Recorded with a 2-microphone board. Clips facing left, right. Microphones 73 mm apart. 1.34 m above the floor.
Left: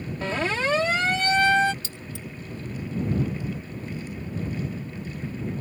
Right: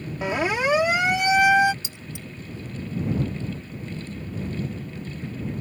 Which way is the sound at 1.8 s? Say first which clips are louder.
Left 1 dB; 20° right (ahead or behind).